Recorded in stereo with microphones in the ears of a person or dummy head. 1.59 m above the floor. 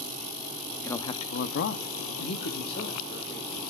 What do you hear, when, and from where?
0.8 s a man speaking: 10° left (ahead or behind), 0.6 m; by 3.6 s 55° left (ahead or behind), 2 m